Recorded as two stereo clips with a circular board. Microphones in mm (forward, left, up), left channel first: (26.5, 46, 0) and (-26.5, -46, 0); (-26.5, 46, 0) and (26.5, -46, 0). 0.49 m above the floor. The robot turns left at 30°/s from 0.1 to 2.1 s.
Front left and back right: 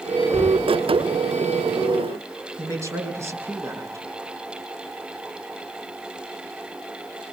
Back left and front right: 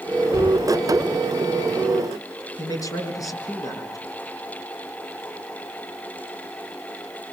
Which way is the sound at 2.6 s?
175° left.